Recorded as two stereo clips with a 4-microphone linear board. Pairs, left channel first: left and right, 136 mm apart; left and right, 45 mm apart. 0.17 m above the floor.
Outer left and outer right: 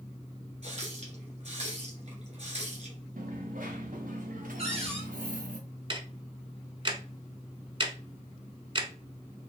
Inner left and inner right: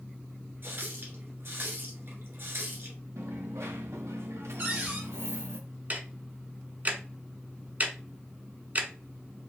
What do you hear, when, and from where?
0.6 s a running tap: 55° right (ahead or behind), 1.8 m
3.2 s a dropped coin: 80° right, 1.4 m
4.6 s a cupboard door: 50° right (ahead or behind), 2 m
5.9 s ticking: 40° right (ahead or behind), 0.8 m